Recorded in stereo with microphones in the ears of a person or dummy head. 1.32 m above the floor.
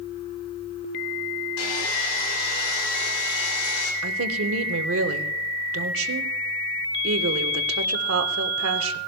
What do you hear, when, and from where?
1.6 s sawing: 75° left (ahead or behind), 2.5 m
4.0 s a woman speaking: 75° right (ahead or behind), 1.3 m